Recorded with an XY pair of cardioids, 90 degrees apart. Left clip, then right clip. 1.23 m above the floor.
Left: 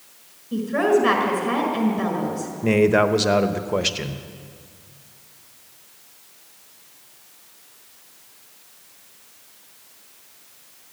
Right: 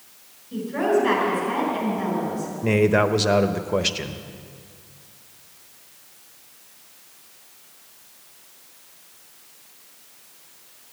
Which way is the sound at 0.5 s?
60° left.